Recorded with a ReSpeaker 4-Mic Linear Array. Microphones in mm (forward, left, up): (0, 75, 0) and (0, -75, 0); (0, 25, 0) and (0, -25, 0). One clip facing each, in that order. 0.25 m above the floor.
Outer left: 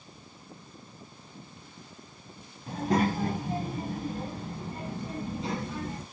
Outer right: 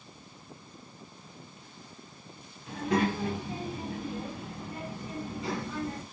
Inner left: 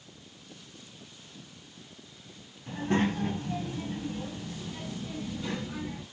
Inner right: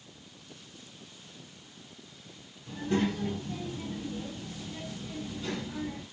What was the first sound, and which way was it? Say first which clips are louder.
A child speaking: outer left 1 dB, inner left 2 dB; 35° left (ahead or behind).